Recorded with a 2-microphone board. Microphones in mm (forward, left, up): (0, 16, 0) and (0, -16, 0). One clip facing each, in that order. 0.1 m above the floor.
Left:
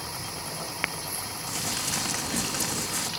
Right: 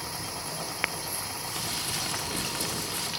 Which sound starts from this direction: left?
Crumpling, at 1.5 s.